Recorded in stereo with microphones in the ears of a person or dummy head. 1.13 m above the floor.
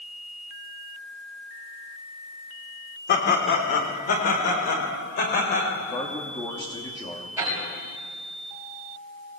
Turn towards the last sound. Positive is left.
turn(degrees=-15)  # may be behind; listen again after turning